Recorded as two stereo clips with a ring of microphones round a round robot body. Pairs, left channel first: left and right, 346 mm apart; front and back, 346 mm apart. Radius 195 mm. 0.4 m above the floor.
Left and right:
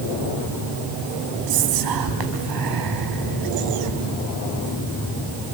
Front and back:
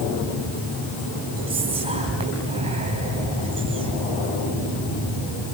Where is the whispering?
105° right, 4 m.